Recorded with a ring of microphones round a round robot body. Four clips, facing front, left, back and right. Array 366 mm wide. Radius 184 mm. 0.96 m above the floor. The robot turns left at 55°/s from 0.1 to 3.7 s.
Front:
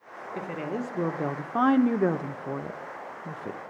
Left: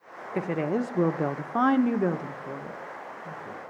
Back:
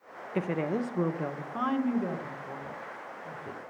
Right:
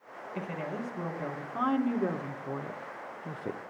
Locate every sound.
0.3 s a woman speaking: 120° left, 0.7 m; by 3.6 s 55° right, 0.7 m